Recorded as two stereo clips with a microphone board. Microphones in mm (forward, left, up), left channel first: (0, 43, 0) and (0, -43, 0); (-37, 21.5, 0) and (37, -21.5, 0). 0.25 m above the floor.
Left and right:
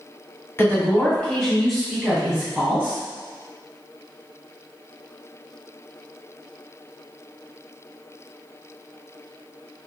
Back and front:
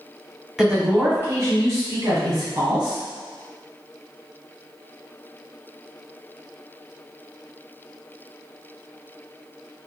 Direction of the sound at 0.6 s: 50° left.